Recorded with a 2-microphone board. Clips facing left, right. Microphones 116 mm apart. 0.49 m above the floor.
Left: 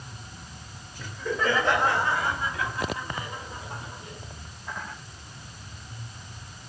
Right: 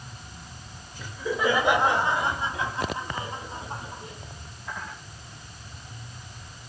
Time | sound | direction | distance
1.0 | laughter | 5° right (ahead or behind) | 1.9 m